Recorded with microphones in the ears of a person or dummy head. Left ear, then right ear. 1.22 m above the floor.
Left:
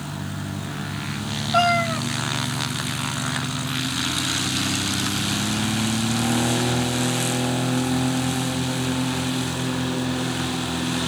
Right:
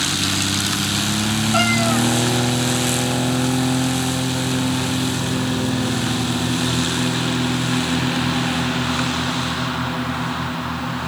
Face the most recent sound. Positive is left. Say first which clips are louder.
# even
turn(degrees=-10)  # may be behind; listen again after turning